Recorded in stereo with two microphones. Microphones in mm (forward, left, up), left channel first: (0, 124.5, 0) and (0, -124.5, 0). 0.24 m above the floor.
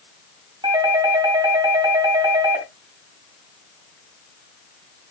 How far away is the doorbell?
About 3 m.